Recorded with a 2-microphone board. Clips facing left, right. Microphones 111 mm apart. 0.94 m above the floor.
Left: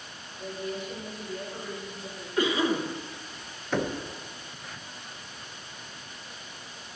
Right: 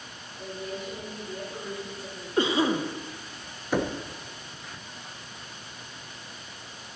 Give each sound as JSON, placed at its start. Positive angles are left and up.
{"t": 0.4, "sound": "a woman speaking", "side_deg": -40, "distance_m": 3.0}
{"t": 2.4, "sound": "a cough", "side_deg": -30, "distance_m": 0.8}
{"t": 3.7, "sound": "knocking", "side_deg": -10, "distance_m": 0.5}